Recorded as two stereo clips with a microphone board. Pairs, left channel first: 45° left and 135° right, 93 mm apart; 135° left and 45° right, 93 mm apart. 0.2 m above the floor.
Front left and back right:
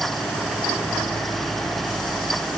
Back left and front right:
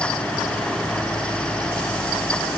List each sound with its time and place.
Only background noise.